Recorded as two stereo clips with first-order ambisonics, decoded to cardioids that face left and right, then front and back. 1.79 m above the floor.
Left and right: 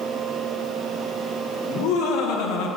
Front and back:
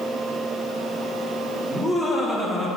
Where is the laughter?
80° left, 2 m.